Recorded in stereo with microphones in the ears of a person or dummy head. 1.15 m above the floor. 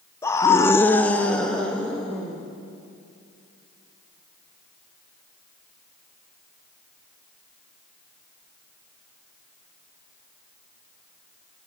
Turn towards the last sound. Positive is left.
turn(degrees=0)  # may be behind; listen again after turning